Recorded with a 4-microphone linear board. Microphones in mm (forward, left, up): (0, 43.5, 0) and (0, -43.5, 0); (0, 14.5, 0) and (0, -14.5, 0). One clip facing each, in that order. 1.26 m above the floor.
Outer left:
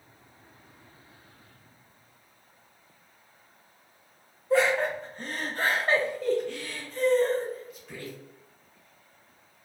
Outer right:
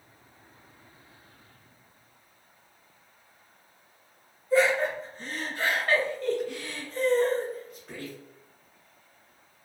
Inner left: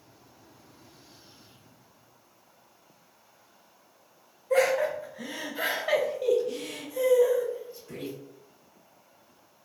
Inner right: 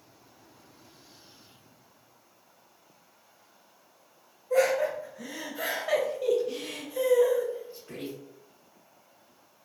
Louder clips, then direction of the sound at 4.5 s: Even, inner left 1 dB; 70° left (ahead or behind).